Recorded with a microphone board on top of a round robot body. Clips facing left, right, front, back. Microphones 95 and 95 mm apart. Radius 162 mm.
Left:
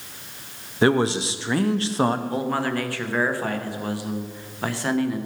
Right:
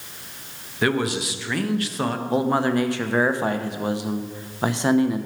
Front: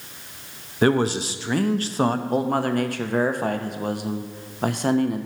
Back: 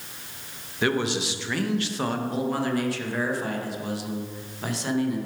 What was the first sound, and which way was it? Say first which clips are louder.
A man speaking: left 3 dB, front 5 dB; 40° left.